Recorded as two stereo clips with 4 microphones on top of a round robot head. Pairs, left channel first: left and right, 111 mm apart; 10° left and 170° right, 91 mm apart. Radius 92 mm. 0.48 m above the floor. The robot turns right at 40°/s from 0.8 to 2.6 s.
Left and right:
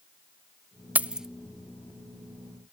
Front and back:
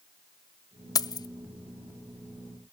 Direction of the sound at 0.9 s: 20° right.